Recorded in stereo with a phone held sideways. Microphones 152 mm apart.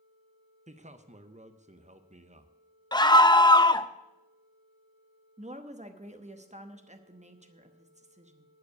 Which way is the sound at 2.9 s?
30° left (ahead or behind).